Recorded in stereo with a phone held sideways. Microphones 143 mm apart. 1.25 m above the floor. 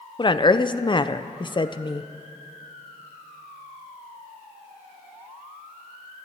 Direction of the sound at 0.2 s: 35° left (ahead or behind).